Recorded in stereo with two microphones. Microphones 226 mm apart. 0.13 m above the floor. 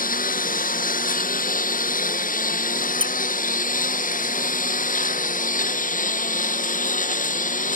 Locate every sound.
0.0 s a lawn mower: 35° left (ahead or behind)
3.0 s a squeak: 25° right (ahead or behind)